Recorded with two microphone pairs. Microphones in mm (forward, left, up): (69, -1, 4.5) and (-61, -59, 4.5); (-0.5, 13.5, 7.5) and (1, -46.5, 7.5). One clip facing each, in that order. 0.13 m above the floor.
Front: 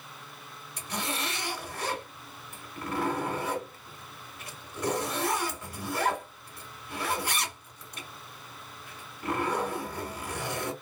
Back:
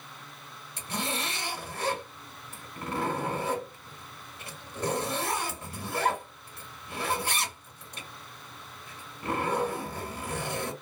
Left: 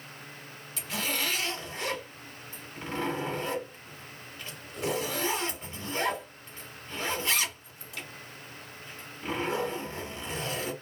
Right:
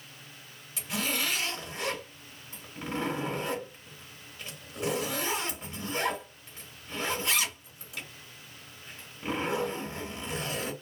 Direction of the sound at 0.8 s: 140° right.